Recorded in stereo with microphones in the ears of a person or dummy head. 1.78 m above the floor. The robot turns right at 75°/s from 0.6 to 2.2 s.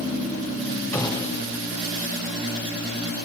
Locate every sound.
0.9 s a gunshot: 10° left, 2.5 m; by 1.4 s 45° left, 2.5 m